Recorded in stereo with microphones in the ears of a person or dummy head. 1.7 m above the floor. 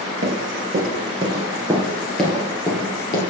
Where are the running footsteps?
40° right (ahead or behind), 2.5 m; by 3.3 s 25° left (ahead or behind), 2 m.